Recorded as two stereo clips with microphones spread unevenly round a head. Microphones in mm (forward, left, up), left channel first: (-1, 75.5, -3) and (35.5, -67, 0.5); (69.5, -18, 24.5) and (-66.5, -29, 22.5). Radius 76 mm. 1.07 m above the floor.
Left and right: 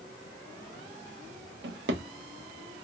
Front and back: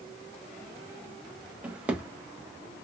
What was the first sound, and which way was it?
A drawer, 95° right.